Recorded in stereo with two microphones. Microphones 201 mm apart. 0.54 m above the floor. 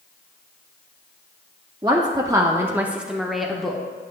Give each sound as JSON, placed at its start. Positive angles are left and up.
{"t": 1.8, "sound": "a woman speaking", "side_deg": -20, "distance_m": 0.7}